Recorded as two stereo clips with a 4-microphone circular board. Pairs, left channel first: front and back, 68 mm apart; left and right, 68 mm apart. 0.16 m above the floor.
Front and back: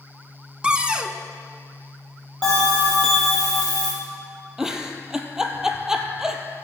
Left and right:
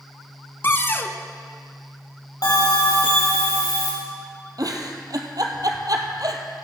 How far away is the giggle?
About 1.1 m.